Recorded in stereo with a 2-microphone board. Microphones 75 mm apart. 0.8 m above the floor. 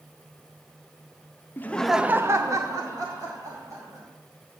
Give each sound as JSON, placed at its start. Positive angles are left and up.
{"t": 1.6, "sound": "laughter", "side_deg": 25, "distance_m": 0.7}